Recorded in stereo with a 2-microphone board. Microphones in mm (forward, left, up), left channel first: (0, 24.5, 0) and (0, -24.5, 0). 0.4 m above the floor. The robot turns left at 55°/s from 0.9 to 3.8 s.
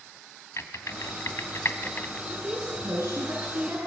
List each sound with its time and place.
0.6 s typing on a keyboard: 65° left (ahead or behind), 2.5 m; by 2.2 s 30° left (ahead or behind), 2.5 m
2.3 s a woman speaking: 45° right, 6 m; by 3.8 s 125° right, 6 m